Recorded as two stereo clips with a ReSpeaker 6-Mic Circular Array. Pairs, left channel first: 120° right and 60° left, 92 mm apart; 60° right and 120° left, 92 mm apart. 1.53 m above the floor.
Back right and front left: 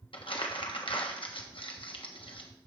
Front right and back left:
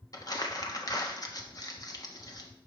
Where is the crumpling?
105° right, 1.1 m.